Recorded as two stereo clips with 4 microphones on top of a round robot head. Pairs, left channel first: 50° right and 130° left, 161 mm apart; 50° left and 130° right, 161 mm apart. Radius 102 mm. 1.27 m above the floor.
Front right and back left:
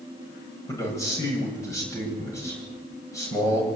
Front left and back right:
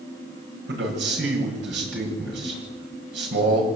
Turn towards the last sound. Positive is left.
turn(degrees=-125)